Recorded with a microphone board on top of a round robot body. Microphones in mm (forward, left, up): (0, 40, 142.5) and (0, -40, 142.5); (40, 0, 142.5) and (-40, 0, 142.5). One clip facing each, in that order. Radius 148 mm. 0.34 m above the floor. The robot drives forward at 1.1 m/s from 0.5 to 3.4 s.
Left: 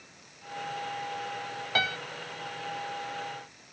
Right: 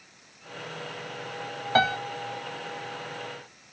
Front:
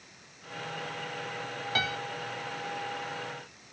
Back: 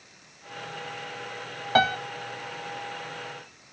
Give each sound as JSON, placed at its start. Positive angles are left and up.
{"t": 1.8, "sound": "a piano", "azimuth_deg": -140}